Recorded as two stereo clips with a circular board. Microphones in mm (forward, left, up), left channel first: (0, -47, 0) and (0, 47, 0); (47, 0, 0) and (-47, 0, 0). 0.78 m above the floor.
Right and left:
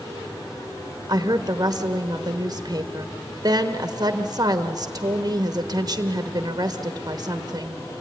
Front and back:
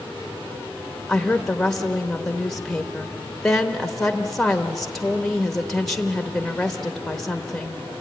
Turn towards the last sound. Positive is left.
turn(degrees=85)